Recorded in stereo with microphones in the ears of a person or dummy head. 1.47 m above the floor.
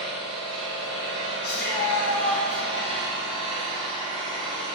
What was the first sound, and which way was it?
An engine running, 25° right (ahead or behind).